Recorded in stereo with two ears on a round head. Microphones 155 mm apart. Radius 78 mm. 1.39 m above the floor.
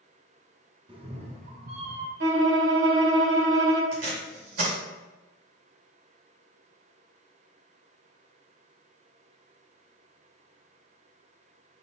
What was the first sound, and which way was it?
A cat meowing, 25° right (ahead or behind).